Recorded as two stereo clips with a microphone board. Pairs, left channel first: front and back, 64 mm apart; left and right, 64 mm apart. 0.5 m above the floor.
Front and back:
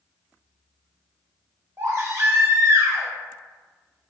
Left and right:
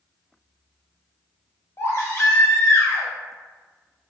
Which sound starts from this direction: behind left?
A baby crying, at 1.8 s.